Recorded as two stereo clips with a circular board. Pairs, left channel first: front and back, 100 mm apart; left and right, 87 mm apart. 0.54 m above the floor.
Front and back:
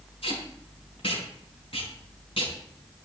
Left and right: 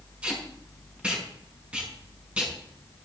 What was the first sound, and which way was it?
Tape being pulled, 15° right.